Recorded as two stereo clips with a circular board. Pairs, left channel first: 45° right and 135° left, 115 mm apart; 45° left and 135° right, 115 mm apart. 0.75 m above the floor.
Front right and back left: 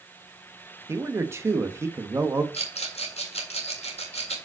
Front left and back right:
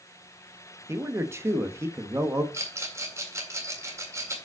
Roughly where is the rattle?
Right.